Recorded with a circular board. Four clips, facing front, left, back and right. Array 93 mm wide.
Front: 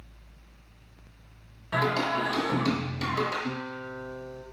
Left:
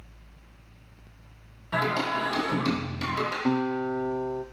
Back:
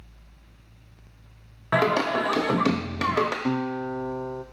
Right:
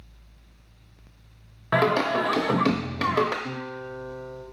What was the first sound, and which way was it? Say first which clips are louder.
Singing: right 5 dB, back 5 dB; 135° right.